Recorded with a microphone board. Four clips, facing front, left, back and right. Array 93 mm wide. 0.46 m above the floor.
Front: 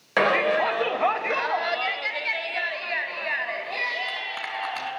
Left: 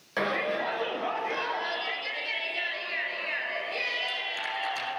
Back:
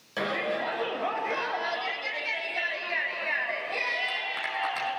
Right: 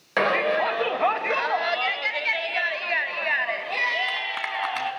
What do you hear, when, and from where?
0.2 s a shout: 35° right, 1.8 m; by 4.9 s 85° right, 4 m